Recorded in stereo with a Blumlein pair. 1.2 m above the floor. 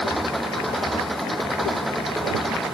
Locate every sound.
0.0 s an engine running: 5° right